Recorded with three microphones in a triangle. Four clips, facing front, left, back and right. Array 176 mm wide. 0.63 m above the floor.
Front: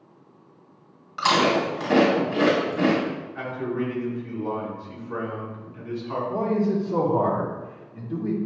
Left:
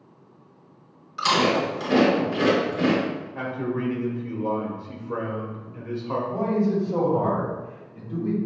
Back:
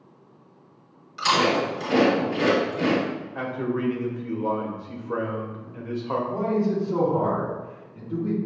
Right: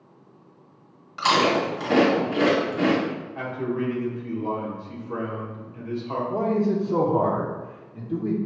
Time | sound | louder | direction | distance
1.2 | chewing | right 1 dB, front 1 dB | 30° right | 1.5 m
3.4 | a man speaking | right 1 dB, back 2 dB | straight behind | 1.6 m
6.3 | a man speaking | right 1 dB, front 2 dB | 80° right | 1.0 m